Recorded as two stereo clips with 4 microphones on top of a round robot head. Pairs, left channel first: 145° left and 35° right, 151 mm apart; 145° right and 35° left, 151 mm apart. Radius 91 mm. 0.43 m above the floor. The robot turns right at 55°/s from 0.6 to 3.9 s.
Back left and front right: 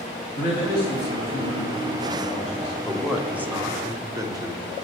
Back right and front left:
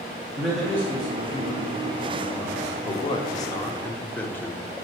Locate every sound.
0.4 s a man speaking: 125° left, 3 m; by 2.8 s 115° right, 3 m
2.9 s a man speaking: 135° right, 1.1 m; by 4.7 s 80° right, 1.1 m